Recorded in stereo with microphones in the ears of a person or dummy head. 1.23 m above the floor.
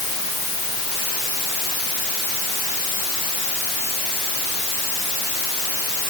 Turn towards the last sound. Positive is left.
No sound to turn to.